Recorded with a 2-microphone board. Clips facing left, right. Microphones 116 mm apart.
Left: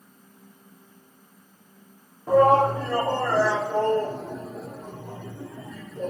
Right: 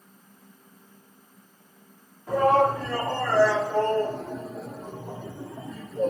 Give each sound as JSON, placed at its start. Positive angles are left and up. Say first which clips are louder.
{"t": 2.3, "sound": "a shout", "louder": "left 3 dB", "side_deg": 35, "distance_m": 3.0}